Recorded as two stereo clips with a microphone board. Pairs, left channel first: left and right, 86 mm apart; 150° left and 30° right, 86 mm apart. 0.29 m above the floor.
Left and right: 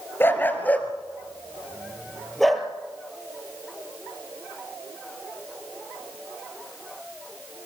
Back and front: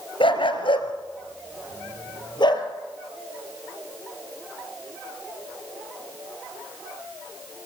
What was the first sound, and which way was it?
A dog barking, 155° left.